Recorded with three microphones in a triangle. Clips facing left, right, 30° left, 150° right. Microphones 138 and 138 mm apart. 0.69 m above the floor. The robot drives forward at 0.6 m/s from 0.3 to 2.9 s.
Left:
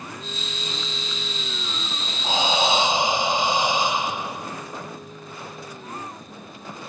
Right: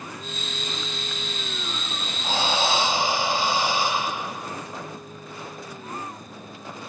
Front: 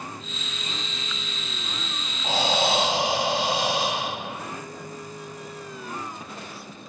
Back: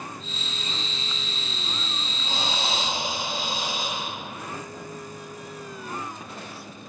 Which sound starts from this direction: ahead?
Breathing, at 2.2 s.